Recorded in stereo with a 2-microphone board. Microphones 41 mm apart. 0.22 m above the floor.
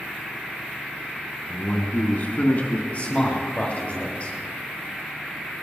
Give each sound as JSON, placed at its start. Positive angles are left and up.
{"t": 1.5, "sound": "a man speaking", "side_deg": 55, "distance_m": 3.0}
{"t": 2.9, "sound": "a man speaking", "side_deg": 35, "distance_m": 5.5}